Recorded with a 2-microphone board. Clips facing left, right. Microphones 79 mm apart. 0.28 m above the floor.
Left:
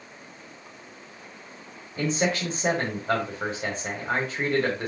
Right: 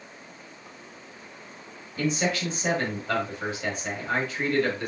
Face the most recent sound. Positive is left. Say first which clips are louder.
# left 1 dB
turn(degrees=35)  # may be behind; listen again after turning